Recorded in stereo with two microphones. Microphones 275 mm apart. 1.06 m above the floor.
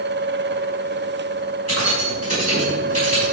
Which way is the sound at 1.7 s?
65° left (ahead or behind).